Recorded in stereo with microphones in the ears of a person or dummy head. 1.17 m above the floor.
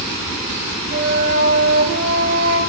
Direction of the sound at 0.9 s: 85° right.